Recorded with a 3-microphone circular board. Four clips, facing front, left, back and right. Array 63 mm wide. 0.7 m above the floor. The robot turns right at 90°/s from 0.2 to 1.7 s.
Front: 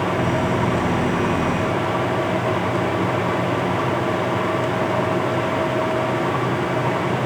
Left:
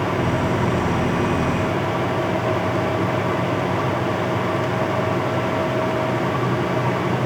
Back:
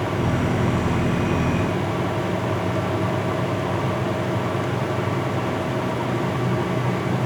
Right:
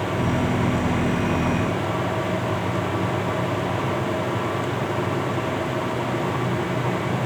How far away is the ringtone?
No ringtone in this recording.